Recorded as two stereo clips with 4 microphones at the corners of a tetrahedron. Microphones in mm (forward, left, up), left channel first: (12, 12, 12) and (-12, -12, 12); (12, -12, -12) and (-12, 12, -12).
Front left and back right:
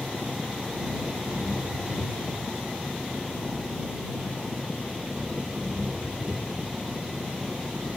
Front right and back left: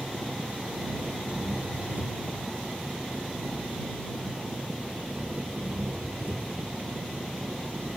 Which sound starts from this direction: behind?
An engine running, at 0.0 s.